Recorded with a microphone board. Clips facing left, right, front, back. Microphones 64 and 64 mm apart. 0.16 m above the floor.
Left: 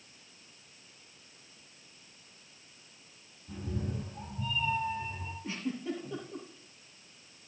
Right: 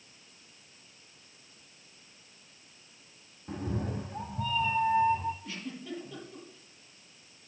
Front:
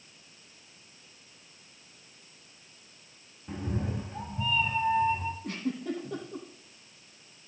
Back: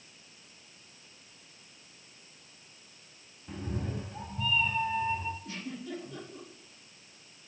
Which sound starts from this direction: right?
A cat meowing, at 3.5 s.